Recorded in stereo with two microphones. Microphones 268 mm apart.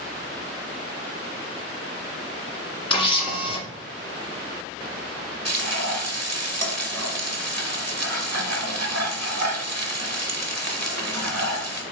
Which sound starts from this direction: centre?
A camera shutter, at 2.9 s.